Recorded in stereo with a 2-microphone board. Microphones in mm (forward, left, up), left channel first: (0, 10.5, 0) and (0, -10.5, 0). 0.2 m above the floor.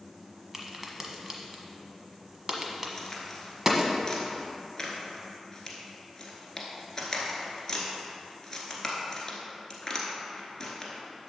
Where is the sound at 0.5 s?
20° right (ahead or behind), 1.1 m.